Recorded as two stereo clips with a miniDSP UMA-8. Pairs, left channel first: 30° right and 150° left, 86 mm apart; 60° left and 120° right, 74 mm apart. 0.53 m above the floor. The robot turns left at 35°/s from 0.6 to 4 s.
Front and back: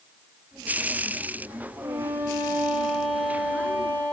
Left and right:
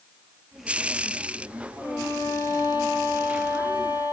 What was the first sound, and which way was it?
A violin, 110° left.